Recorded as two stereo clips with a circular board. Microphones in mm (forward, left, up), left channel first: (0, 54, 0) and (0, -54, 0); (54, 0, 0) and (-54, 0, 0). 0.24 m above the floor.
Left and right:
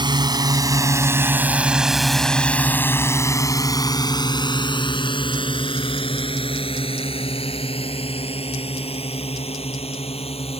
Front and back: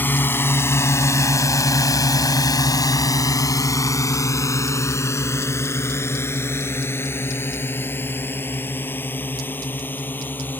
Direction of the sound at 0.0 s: 65° right.